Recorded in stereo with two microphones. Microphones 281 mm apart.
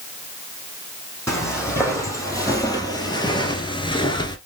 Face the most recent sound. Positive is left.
turn(degrees=15)  # may be behind; listen again after turning